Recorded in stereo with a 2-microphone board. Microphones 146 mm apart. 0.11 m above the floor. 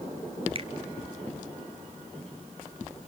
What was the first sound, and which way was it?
A finger snap, 40° right (ahead or behind).